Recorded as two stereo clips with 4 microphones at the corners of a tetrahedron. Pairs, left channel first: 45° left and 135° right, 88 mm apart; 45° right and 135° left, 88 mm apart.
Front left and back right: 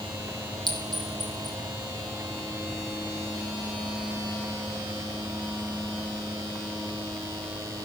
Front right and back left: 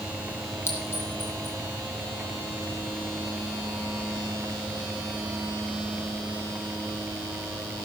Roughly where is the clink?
Right.